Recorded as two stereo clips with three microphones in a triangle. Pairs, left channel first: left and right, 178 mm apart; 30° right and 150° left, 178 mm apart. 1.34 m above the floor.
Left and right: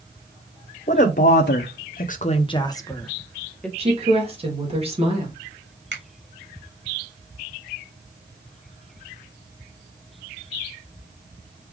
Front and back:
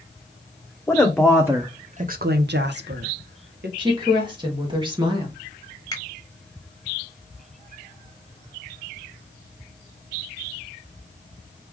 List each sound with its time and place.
0.9 s a woman speaking: 45° left, 0.8 m; by 3.7 s 175° left, 1.3 m
3.8 s a woman speaking: 145° right, 1.9 m
5.9 s a finger snap: 100° right, 1.7 m